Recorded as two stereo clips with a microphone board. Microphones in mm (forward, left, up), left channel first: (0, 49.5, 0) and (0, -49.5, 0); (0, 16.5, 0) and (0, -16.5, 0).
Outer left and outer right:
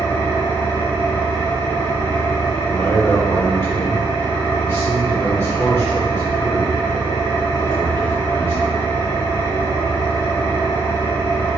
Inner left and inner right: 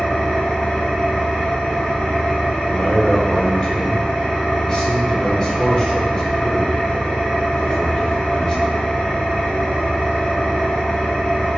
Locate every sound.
0.0 s an engine running: 30° left (ahead or behind), 1.8 m
2.7 s a man speaking: 25° left (ahead or behind), 1.6 m